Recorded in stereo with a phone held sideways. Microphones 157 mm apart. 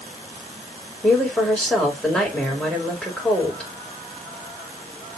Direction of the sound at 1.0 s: 5° left (ahead or behind).